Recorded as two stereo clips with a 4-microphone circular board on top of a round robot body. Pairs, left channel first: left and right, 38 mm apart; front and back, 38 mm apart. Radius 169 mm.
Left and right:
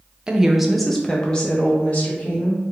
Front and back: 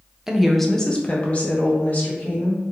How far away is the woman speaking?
About 0.8 m.